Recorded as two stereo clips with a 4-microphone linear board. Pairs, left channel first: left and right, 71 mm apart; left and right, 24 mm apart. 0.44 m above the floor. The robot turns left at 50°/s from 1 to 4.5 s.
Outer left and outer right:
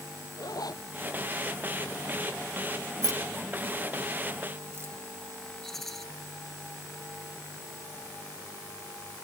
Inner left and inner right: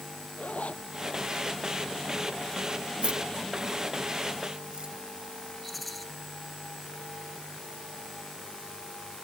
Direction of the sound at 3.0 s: 55° right (ahead or behind).